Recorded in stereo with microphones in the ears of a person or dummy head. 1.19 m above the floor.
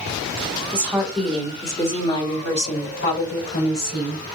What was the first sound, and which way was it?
A woman speaking, 10° right (ahead or behind).